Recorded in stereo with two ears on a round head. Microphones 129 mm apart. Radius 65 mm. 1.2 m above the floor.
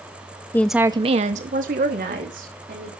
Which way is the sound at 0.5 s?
15° left (ahead or behind).